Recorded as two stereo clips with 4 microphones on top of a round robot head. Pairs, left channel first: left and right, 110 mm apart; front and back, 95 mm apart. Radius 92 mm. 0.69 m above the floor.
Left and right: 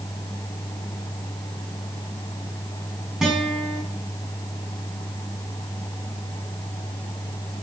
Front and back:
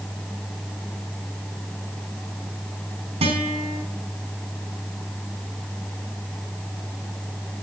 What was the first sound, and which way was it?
A guitar, 175° right.